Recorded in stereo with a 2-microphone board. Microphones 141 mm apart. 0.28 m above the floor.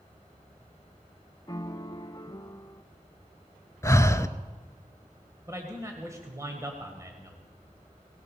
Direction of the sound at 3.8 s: 20° left (ahead or behind).